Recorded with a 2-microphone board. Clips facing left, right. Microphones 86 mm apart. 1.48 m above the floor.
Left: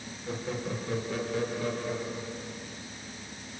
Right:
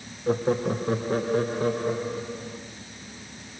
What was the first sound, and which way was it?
Laughter, 50° right (ahead or behind).